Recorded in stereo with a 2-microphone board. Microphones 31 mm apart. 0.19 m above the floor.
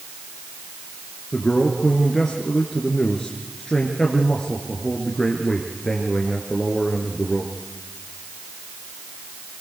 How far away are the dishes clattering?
I don't hear dishes clattering.